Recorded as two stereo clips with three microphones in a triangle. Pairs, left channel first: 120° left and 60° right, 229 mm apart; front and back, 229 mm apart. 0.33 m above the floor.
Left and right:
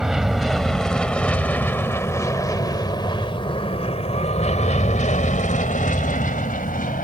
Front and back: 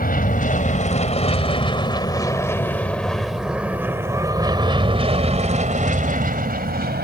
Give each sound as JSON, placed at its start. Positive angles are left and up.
{"t": 0.0, "sound": "an aircraft", "azimuth_deg": 25}